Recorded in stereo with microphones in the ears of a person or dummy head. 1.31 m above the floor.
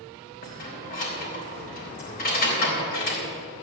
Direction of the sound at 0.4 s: 45° left (ahead or behind).